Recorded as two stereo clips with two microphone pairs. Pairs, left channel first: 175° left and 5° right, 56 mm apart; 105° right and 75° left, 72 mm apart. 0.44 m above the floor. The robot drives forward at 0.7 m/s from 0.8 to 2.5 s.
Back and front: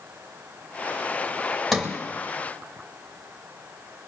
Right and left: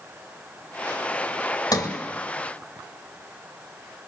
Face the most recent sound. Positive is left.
turn(degrees=-115)